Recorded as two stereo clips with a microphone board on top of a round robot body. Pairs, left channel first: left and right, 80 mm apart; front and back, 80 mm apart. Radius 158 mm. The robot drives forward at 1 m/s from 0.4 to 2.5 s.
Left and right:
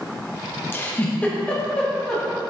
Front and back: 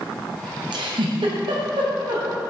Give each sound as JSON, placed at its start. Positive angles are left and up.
{"t": 0.7, "sound": "a giggle", "azimuth_deg": 155, "distance_m": 0.9}